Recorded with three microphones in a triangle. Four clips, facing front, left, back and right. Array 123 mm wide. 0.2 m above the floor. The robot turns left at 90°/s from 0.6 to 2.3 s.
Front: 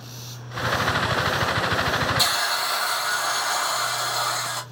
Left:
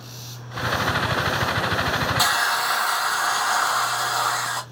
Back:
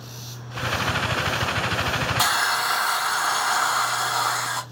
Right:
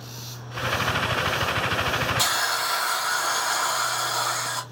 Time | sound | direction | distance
2.2 | a hiss | 135° left | 1.1 m